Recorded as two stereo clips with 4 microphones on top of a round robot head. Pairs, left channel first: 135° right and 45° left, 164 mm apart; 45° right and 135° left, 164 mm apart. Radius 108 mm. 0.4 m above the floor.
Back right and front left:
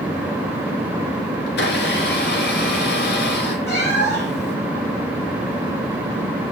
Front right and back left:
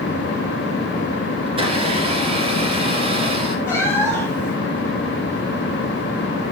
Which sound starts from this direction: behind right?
A cat meowing, at 3.7 s.